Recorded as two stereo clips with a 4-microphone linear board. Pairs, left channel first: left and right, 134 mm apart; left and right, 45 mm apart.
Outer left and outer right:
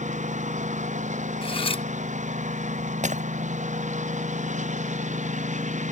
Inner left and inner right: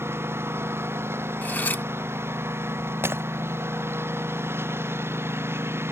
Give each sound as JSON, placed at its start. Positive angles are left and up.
{"t": 0.0, "sound": "a lawn mower", "side_deg": -65}
{"t": 1.4, "sound": "cutlery clinking", "side_deg": 45}
{"t": 3.0, "sound": "breaking glass", "side_deg": -60}